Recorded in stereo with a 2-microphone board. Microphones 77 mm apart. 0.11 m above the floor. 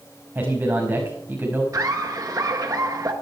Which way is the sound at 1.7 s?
40° right (ahead or behind).